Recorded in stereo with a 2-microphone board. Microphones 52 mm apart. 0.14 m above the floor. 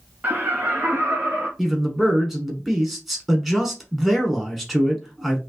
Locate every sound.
0.2 s laughter: 35° right (ahead or behind), 1.2 m; by 1.5 s 50° right (ahead or behind), 2.5 m
1.6 s a man speaking: centre (ahead or behind), 1.2 m